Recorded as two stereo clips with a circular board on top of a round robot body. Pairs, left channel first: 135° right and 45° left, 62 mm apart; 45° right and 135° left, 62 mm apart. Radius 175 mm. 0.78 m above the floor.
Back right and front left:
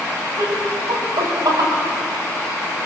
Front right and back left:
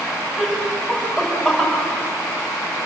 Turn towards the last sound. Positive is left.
turn(degrees=50)